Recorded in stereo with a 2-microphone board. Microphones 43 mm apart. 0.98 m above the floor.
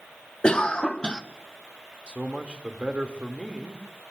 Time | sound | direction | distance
0.4 | a cough | 20° left (ahead or behind) | 0.6 m
2.1 | a man speaking | 25° right (ahead or behind) | 1.9 m